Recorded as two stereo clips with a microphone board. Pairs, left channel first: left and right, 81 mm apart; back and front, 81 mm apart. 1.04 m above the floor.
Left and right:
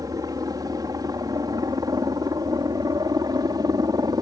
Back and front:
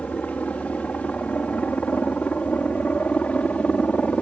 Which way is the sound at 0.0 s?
110° right.